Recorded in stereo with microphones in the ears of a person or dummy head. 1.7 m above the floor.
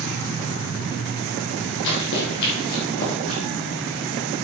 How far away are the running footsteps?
About 2.5 m.